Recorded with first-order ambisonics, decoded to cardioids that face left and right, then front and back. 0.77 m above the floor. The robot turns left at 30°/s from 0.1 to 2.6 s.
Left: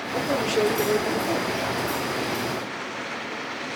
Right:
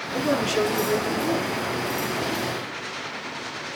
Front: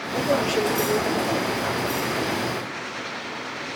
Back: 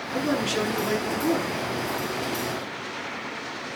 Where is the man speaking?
130° right, 8 m; by 1.5 s 170° right, 8 m.